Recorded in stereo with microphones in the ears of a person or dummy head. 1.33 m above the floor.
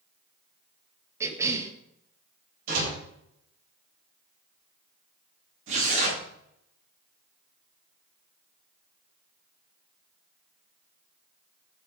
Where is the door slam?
55° right (ahead or behind), 7.5 m.